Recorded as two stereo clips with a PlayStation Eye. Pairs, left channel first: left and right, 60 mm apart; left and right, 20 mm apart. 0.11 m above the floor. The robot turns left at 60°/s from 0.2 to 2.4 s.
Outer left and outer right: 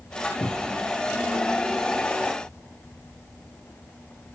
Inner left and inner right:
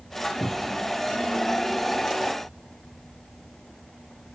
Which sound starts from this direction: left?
A cupboard door, at 0.4 s.